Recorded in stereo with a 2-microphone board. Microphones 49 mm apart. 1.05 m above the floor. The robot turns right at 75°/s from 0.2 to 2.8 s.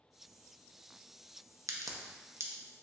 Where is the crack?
70° right (ahead or behind), 0.5 m; by 2.5 s 50° right (ahead or behind), 0.5 m.